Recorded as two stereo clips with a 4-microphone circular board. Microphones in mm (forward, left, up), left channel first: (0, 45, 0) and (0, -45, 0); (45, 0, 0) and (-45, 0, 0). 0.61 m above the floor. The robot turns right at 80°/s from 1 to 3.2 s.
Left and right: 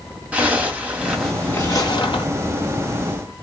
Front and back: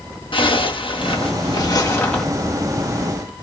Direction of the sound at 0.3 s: 15° right.